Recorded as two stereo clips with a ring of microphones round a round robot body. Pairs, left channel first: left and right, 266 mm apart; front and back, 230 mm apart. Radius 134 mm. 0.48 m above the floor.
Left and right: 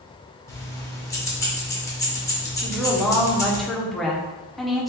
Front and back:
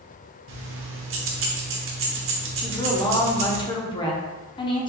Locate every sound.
0.5 s keys jangling: 170° left, 0.9 m
2.6 s a woman speaking: straight ahead, 0.7 m